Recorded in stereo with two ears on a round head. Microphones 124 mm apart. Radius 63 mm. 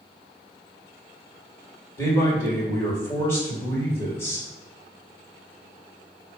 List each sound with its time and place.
2.0 s a man speaking: 20° left (ahead or behind), 1.7 m